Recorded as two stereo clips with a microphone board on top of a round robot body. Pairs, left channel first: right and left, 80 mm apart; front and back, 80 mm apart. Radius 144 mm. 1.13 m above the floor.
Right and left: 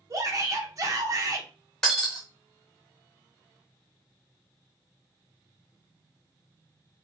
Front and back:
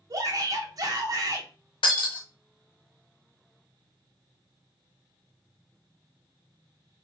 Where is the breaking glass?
5° right, 0.8 m.